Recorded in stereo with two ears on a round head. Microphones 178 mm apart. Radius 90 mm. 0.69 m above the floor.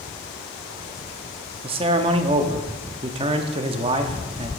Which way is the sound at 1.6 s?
30° right (ahead or behind).